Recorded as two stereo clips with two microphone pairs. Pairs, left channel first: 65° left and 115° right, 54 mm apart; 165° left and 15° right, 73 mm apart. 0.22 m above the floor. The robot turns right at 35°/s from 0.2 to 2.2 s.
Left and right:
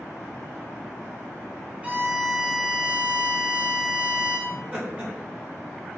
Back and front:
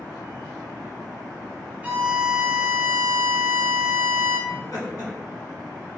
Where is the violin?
65° right, 1.3 m; by 4.4 s 50° right, 1.3 m.